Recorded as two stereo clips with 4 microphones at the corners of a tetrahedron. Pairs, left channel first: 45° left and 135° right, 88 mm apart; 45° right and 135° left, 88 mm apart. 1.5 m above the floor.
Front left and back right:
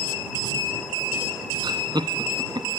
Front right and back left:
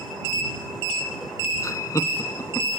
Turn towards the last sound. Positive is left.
turn(degrees=-95)